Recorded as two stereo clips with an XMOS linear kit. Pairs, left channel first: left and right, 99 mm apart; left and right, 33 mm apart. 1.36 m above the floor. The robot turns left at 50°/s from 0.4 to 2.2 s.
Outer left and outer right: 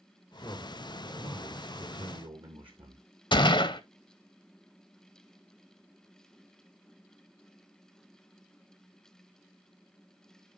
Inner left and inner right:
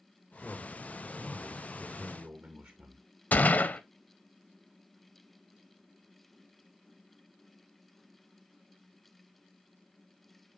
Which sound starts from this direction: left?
A gunshot, at 3.3 s.